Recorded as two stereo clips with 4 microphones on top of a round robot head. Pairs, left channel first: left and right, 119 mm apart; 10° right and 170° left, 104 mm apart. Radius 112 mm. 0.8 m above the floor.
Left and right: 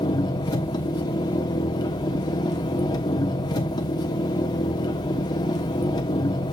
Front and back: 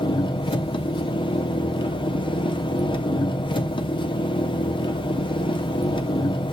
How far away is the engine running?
About 1.0 m.